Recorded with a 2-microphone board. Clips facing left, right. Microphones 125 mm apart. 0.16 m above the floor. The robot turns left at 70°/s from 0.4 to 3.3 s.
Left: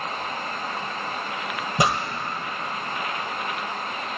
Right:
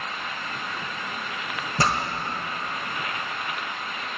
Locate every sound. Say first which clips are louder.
1.8 s a pop: left 2 dB; 15° left (ahead or behind), 0.9 m; by 2.0 s centre (ahead or behind), 0.9 m